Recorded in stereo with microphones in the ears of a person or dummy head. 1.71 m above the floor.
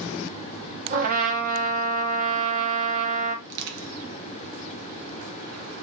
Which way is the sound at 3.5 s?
60° right (ahead or behind).